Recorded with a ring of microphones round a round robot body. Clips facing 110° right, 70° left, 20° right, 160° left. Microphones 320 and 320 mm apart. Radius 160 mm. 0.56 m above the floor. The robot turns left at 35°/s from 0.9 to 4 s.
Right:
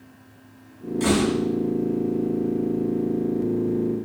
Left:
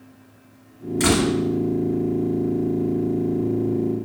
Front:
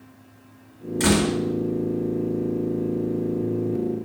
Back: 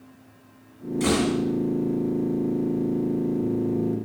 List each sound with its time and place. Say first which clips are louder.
1.0 s a door slam: left 1 dB, front 2 dB; 25° left, 1.5 m; by 1.4 s 15° left, 1.5 m